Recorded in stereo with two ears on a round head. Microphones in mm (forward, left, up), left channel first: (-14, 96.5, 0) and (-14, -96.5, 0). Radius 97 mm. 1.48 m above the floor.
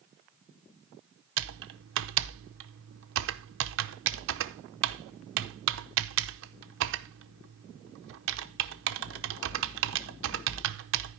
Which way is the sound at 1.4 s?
70° right (ahead or behind).